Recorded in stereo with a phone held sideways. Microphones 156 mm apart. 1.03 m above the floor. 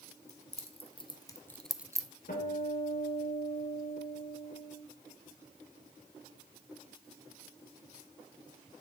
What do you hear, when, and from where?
0.3 s keys jangling: 45° left (ahead or behind), 1.5 m; by 2.1 s 30° right (ahead or behind), 0.6 m
2.3 s a guitar: 70° left (ahead or behind), 4 m